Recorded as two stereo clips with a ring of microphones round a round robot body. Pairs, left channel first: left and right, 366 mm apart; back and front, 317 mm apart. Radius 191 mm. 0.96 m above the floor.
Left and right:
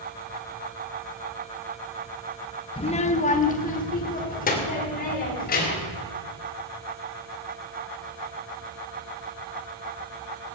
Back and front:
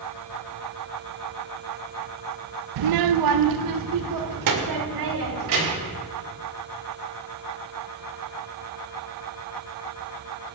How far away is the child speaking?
About 0.5 m.